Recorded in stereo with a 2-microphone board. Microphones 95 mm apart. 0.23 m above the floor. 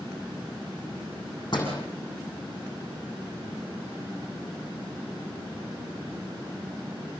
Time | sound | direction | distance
1.5 | a door slam | 50° left (ahead or behind) | 8 m